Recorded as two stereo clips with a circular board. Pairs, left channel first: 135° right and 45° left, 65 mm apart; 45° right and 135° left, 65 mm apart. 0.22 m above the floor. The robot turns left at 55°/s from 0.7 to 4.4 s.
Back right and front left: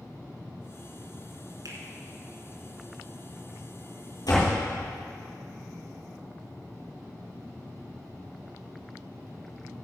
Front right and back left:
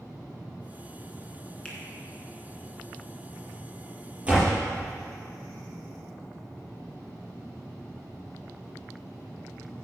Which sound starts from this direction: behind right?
A door slam, at 4.2 s.